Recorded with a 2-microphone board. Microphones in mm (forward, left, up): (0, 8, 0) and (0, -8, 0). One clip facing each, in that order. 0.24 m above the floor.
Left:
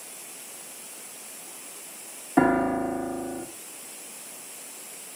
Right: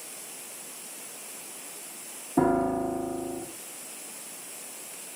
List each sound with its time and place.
2.4 s a piano: 65° left (ahead or behind), 1.6 m